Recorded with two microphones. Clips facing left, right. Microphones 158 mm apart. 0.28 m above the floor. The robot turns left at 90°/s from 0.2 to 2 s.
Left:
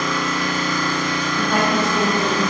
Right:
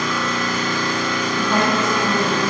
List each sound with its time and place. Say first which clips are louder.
0.0 s an engine running: even; 175° right, 0.8 m; by 2.5 s 25° left, 0.8 m
1.4 s a woman speaking: even; 5° right (ahead or behind), 0.9 m; by 2.4 s 20° right (ahead or behind), 0.9 m